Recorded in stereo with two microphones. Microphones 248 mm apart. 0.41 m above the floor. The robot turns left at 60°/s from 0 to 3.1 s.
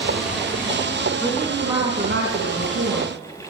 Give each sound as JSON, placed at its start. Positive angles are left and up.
{"t": 1.2, "sound": "a woman speaking", "azimuth_deg": 15, "distance_m": 3.5}